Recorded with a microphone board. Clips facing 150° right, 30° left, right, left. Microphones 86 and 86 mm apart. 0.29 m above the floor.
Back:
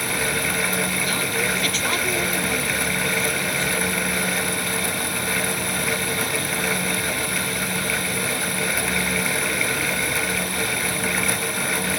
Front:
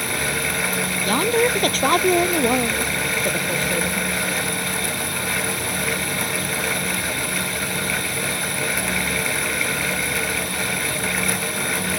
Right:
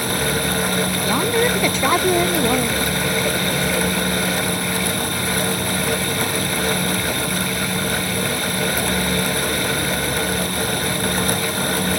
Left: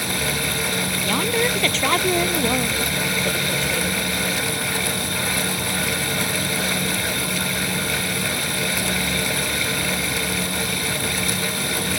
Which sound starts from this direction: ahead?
A woman speaking, at 1.1 s.